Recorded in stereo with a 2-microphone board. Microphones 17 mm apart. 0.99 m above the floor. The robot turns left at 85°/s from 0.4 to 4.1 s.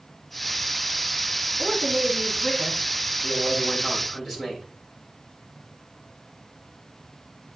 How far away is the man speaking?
About 7.5 m.